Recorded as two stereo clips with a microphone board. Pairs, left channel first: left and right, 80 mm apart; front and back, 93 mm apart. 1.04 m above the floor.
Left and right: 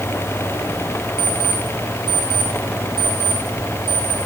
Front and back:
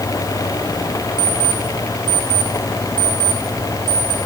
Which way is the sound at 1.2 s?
130° left.